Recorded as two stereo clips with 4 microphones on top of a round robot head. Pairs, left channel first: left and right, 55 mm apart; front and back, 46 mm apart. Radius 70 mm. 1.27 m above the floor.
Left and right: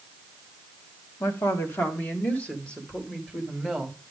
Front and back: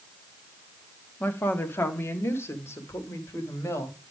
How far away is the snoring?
I don't hear snoring.